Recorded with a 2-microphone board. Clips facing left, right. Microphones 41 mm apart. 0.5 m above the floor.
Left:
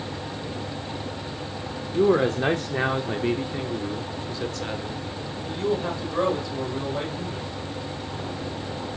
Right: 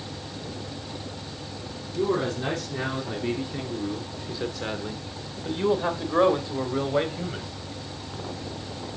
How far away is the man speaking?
About 1.1 m.